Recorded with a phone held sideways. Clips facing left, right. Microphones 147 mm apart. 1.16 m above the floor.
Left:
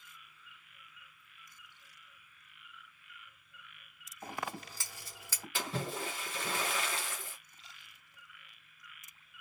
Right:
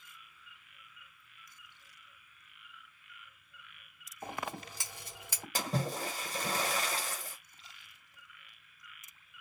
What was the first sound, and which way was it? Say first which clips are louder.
Scissors: right 1 dB; 20° right (ahead or behind).